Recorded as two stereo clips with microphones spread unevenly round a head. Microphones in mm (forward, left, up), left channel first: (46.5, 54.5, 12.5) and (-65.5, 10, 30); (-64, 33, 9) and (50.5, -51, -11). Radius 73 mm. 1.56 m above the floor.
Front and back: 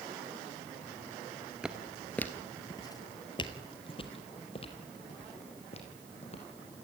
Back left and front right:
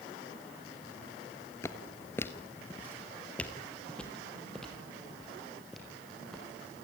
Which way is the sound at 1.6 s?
145° left.